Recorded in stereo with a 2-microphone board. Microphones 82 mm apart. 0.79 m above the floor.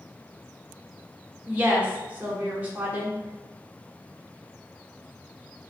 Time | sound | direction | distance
1.5 | a woman speaking | 20° right (ahead or behind) | 0.9 m